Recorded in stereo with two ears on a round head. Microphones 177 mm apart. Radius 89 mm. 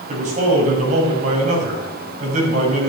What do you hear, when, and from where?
0.1 s a man speaking: 40° right (ahead or behind), 5 m